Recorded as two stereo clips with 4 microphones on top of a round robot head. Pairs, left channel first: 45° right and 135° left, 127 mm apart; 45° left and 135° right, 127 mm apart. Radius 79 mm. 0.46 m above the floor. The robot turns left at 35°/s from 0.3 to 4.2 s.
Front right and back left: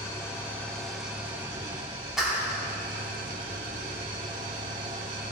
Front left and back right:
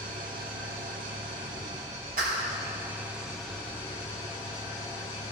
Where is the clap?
140° right, 4 m; by 2.6 s 155° right, 4 m.